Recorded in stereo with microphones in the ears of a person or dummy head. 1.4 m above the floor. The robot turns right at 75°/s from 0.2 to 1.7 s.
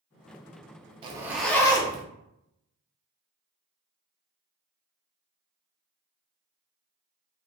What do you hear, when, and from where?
1.0 s a zipper: 30° right, 0.6 m; by 2.0 s 20° left, 0.6 m